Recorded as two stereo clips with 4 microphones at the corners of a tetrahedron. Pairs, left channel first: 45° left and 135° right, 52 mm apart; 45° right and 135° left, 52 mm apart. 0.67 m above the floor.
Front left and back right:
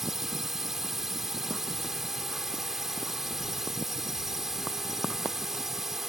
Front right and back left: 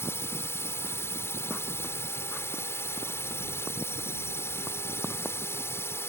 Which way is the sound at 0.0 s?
50° right.